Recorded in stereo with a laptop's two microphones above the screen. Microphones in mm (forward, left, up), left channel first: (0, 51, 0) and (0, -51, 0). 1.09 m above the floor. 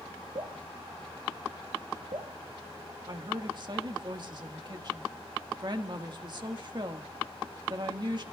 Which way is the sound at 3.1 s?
45° right (ahead or behind).